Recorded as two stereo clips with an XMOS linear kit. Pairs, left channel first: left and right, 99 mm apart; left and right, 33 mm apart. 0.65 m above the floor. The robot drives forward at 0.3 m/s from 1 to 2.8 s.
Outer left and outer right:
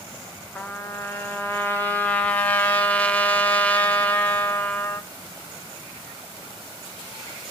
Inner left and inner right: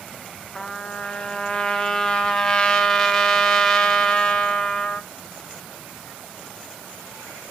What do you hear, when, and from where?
0.6 s a trumpet: 20° left (ahead or behind), 0.6 m; by 5.1 s 15° left (ahead or behind), 0.9 m